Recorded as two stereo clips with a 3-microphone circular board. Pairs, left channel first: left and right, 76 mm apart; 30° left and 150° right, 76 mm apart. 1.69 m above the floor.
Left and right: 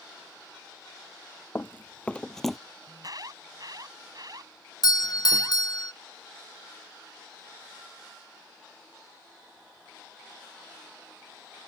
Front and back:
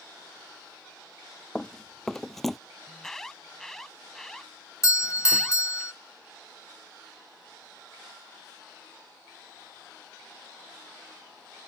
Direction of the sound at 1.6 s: 105° left.